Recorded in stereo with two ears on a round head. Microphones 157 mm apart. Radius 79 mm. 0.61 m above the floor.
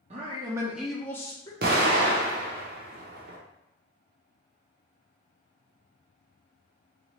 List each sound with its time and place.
0.1 s a man speaking: 40° right (ahead or behind), 0.8 m; by 1.5 s 25° left (ahead or behind), 1.0 m
1.6 s an explosion: 55° right (ahead or behind), 0.9 m